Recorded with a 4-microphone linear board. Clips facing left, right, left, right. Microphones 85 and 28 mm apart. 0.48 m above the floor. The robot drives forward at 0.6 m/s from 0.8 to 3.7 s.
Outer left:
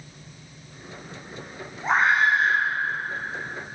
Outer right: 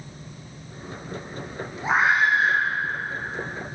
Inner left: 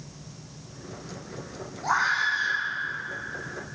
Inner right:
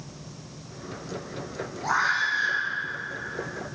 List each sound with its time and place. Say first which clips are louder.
1.8 s a scream: even, even; 5° right (ahead or behind), 8.5 m